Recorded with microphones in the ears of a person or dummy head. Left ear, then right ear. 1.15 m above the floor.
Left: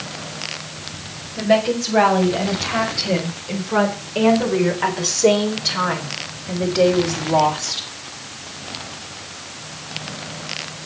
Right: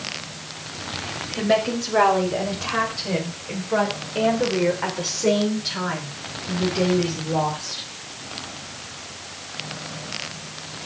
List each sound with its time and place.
1.4 s a woman speaking: 15° right (ahead or behind), 5.5 m; by 7.9 s 35° left (ahead or behind), 4 m